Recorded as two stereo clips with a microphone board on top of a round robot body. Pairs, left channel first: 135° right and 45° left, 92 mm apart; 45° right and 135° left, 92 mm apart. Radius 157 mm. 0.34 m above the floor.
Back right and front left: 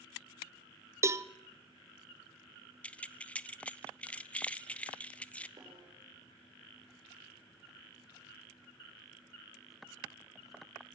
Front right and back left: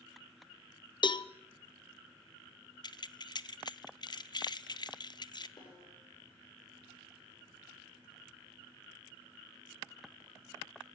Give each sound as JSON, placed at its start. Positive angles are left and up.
{"t": 1.0, "sound": "a cowbell", "azimuth_deg": -15, "distance_m": 0.8}
{"t": 2.8, "sound": "keys jangling", "azimuth_deg": -60, "distance_m": 0.9}
{"t": 5.6, "sound": "a snare drum", "azimuth_deg": -5, "distance_m": 9.5}